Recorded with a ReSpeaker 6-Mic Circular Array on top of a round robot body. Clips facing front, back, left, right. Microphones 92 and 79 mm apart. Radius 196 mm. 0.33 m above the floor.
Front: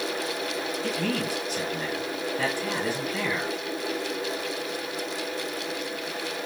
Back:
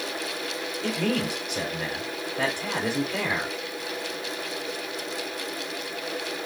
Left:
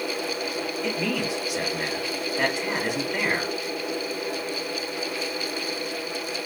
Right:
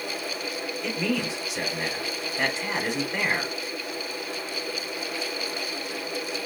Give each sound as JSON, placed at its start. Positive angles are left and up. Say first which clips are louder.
{"t": 0.8, "sound": "a man speaking", "louder": "back 4 dB, right 1 dB", "azimuth_deg": 175, "distance_m": 2.5}